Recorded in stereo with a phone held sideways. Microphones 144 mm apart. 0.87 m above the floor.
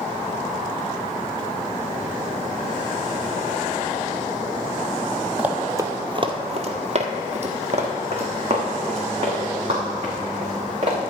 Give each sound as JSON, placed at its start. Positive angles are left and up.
{"t": 5.4, "sound": "running footsteps", "side_deg": -5, "distance_m": 1.3}